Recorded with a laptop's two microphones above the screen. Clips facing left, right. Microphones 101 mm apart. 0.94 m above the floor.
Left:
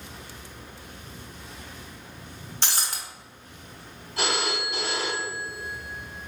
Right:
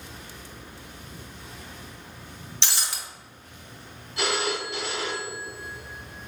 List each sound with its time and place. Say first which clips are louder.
2.6 s breaking glass: left 2 dB; 45° left (ahead or behind), 0.6 m
4.2 s a phone ringing: right 1 dB; 40° left (ahead or behind), 1.6 m